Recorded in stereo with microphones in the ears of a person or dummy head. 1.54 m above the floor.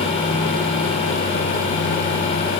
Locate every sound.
Only background noise.